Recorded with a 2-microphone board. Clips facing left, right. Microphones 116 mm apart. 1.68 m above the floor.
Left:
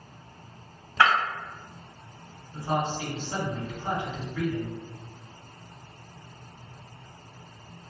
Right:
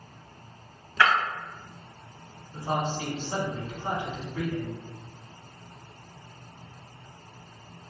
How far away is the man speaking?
About 1.5 m.